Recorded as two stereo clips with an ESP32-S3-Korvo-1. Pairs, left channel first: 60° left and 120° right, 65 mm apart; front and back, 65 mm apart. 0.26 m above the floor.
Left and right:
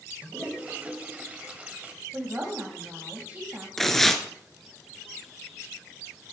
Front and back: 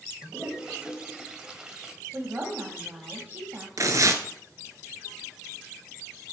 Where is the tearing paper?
145° left, 0.9 m.